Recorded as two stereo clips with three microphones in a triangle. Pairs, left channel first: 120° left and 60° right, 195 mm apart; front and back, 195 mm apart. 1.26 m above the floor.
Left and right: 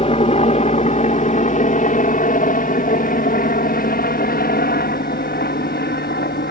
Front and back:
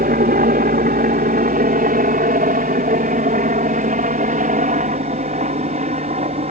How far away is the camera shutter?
I don't hear a camera shutter.